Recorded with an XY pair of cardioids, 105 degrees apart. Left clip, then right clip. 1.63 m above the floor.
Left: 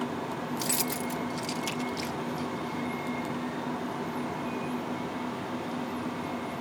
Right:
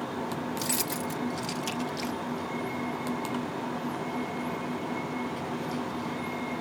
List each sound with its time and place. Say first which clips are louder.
0.6 s keys jangling: left 1 dB; 5° left